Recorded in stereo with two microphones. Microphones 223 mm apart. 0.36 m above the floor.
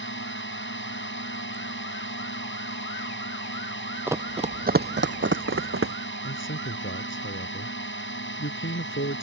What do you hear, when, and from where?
0.0 s a drone: 60° left (ahead or behind)
4.1 s running footsteps: 10° right (ahead or behind); by 6.0 s 70° right (ahead or behind)
6.2 s a man speaking: 65° left (ahead or behind)